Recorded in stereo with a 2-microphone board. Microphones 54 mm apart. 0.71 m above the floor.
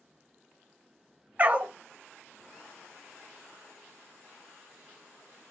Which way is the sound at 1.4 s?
30° right (ahead or behind).